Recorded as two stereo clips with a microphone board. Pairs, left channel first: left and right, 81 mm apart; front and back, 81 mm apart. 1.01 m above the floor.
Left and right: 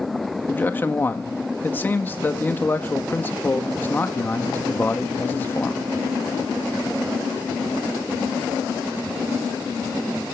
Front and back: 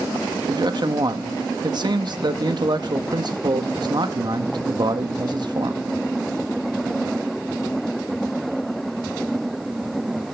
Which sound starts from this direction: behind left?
A man speaking, at 0.5 s.